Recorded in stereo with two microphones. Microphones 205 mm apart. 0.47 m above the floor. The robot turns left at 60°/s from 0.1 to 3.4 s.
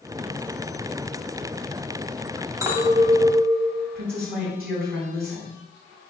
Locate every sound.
2.6 s a clink: 165° right, 1.9 m; by 3.9 s 150° left, 1.9 m
4.0 s a woman speaking: 50° right (ahead or behind), 2.5 m